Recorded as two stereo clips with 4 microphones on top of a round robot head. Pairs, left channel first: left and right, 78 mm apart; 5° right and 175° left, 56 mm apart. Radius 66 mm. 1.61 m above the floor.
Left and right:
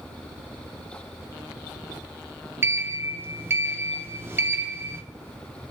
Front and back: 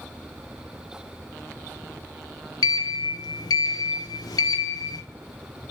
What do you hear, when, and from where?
2.6 s a sliding door: 25° right, 1.1 m